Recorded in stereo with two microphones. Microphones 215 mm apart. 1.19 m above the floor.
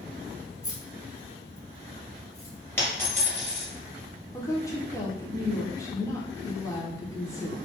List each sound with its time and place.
0.6 s keys jangling: 5° right (ahead or behind), 0.9 m; by 2.5 s 85° left, 1.0 m
2.8 s a dropped coin: 10° left (ahead or behind), 1.3 m
4.3 s a woman speaking: 15° left (ahead or behind), 0.6 m